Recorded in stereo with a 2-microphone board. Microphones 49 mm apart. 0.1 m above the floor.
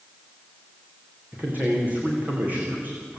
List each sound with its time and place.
1.3 s a man speaking: 35° right (ahead or behind), 8 m